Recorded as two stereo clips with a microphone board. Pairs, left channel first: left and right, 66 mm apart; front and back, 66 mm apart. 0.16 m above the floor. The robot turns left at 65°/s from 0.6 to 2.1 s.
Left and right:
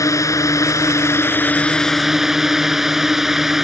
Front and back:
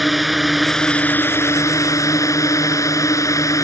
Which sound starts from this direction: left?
A drone, at 0.0 s.